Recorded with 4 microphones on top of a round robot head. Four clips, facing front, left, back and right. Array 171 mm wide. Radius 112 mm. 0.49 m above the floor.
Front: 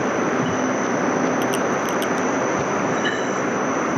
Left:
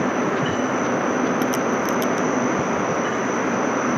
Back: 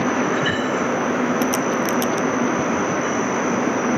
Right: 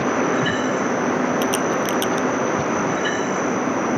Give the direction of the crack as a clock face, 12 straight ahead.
5 o'clock.